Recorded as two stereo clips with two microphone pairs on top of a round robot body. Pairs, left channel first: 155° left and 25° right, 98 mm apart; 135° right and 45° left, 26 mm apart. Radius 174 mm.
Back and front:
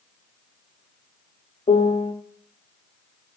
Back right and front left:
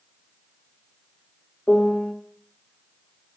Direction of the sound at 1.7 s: 170° left.